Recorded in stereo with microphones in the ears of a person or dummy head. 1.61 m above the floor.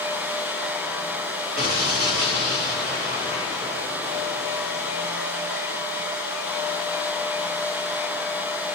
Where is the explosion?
40° right (ahead or behind), 1.0 m.